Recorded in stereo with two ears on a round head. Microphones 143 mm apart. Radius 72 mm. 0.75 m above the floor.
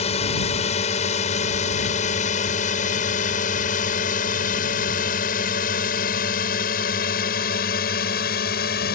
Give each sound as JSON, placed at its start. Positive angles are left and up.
{"t": 0.0, "sound": "a drone", "side_deg": 40}